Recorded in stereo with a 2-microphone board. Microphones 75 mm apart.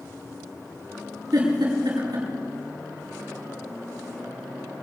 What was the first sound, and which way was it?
A giggle, 80° right.